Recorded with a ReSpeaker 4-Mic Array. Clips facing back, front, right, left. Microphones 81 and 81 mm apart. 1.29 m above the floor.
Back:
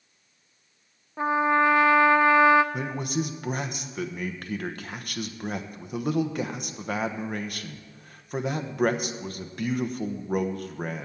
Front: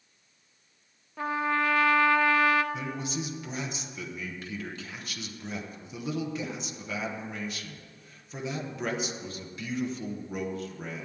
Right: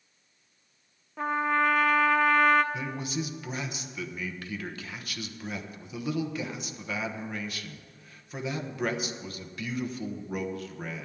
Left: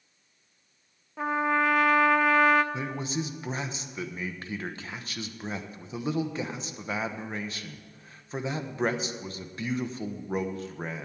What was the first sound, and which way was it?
A trumpet, 175° left.